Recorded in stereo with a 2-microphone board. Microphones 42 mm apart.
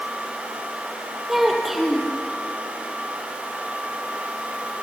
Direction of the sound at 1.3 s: 5° right (ahead or behind).